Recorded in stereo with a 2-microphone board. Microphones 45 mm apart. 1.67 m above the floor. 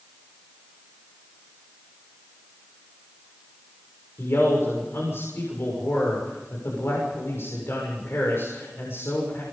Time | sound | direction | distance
4.2 | a man speaking | 60° left (ahead or behind) | 6.5 m